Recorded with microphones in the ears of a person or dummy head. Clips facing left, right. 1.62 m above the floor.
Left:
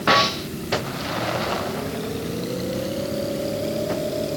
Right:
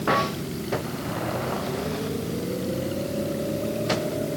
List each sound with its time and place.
Only background noise.